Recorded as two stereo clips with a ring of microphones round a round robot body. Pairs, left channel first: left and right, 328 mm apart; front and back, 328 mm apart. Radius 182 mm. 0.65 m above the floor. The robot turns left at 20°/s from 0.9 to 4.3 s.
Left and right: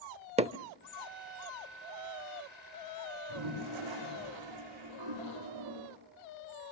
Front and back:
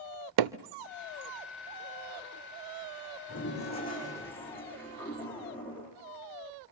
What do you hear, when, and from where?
0.4 s hammering: 160° right, 0.7 m
3.3 s a toilet flushing: 65° right, 10 m; by 5.9 s 85° right, 10 m